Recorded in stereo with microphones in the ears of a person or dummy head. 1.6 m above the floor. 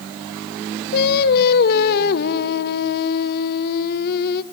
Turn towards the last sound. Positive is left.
turn(degrees=55)  # may be behind; listen again after turning